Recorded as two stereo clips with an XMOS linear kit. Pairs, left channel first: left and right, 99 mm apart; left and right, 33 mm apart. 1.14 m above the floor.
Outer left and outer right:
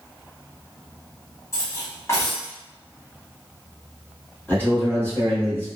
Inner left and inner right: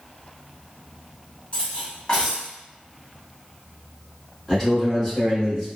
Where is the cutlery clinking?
30° left (ahead or behind), 1.4 m.